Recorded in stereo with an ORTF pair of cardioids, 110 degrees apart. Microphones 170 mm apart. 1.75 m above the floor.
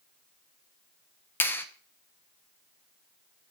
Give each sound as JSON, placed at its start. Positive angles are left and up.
{"t": 1.4, "sound": "a clap", "azimuth_deg": 15, "distance_m": 1.0}